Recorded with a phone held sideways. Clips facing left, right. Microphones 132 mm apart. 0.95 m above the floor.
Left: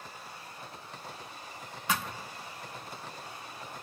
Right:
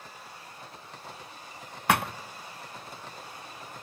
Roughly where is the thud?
Right.